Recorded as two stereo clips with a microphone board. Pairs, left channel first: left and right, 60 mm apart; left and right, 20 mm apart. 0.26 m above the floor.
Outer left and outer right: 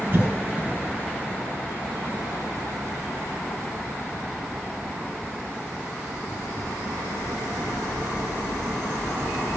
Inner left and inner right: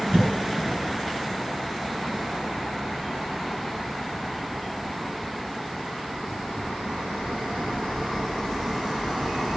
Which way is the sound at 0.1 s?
35° right (ahead or behind).